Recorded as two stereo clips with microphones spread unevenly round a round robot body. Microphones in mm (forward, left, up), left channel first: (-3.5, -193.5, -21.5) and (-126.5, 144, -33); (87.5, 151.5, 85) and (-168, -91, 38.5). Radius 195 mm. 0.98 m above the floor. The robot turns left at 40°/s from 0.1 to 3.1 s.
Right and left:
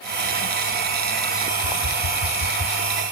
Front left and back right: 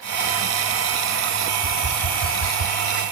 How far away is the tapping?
About 5.5 m.